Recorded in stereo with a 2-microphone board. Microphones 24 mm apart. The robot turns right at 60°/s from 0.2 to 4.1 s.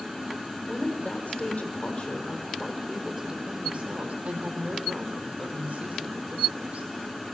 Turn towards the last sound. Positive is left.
turn(degrees=-110)